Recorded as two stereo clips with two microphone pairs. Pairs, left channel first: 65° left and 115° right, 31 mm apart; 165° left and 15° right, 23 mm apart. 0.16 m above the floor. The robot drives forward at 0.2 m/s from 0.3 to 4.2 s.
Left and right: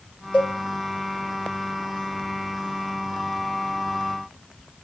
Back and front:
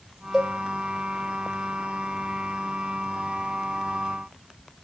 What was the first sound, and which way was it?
A cowbell, 70° left.